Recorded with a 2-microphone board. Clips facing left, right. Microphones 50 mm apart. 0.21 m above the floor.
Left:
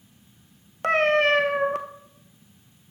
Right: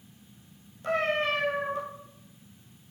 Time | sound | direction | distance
0.8 | a cat meowing | 70° left (ahead or behind) | 0.9 m